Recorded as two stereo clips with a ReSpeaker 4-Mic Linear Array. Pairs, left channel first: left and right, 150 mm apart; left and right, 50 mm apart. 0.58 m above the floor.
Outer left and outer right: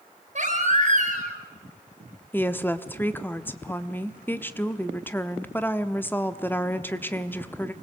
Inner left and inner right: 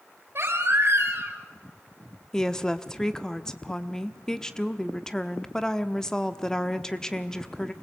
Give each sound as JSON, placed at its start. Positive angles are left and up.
{"t": 0.3, "sound": "a baby crying", "side_deg": -55, "distance_m": 4.0}
{"t": 2.3, "sound": "a woman speaking", "side_deg": 15, "distance_m": 1.1}